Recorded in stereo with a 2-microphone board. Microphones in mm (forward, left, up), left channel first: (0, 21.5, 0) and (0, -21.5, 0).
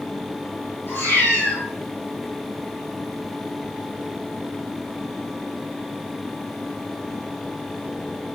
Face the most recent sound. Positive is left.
turn(degrees=50)  # may be behind; listen again after turning